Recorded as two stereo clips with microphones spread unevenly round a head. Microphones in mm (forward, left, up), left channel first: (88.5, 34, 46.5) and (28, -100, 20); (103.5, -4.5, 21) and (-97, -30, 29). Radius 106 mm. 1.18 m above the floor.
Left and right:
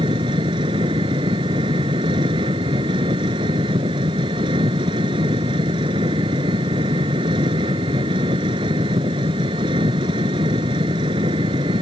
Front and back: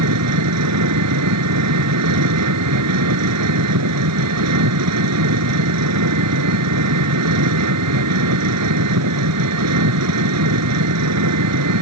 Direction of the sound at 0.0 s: 175° left.